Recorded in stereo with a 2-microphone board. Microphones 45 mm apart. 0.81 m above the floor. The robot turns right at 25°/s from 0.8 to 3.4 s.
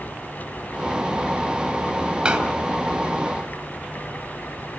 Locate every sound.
2.2 s a door slam: 20° right (ahead or behind), 3 m